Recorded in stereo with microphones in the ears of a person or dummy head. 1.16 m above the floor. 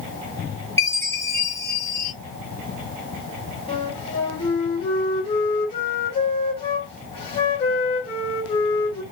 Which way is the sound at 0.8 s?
15° left (ahead or behind).